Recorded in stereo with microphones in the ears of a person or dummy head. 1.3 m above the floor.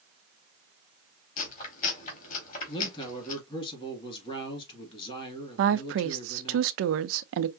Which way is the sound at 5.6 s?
70° right (ahead or behind).